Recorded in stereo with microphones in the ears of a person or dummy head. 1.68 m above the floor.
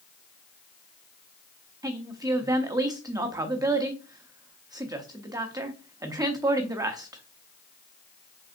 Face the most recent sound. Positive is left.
turn(degrees=-10)  # may be behind; listen again after turning